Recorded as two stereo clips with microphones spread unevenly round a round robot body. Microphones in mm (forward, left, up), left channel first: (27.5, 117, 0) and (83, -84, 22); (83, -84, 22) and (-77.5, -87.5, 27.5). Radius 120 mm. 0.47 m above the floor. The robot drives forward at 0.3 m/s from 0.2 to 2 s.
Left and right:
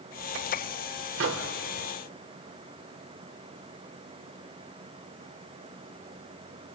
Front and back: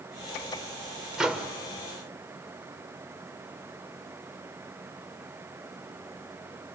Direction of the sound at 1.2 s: 95° right.